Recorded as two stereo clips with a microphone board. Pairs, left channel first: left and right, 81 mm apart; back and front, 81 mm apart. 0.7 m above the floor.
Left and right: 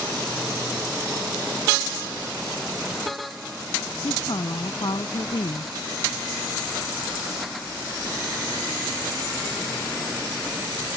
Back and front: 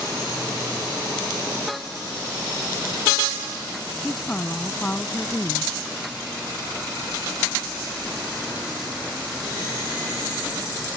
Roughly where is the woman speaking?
Left.